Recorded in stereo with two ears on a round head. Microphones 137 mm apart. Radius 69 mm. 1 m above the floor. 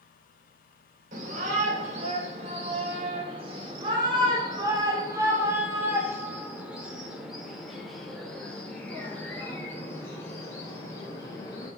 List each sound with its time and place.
1.1 s a shout: 50° right (ahead or behind), 4.5 m; by 11.7 s 25° left (ahead or behind), 5 m